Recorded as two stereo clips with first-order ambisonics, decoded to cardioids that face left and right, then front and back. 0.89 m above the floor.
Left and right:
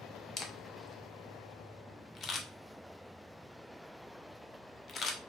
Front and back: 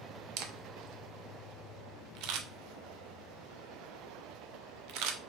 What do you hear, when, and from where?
0.4 s a camera shutter: 155° left, 0.5 m